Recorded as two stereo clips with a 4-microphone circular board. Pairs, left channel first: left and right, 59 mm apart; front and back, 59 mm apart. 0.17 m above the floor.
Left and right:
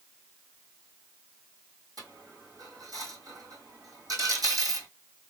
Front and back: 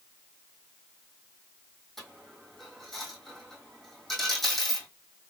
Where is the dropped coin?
85° right, 1.8 m.